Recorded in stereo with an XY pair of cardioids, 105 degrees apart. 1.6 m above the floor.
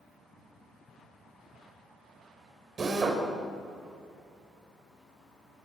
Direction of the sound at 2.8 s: 40° right.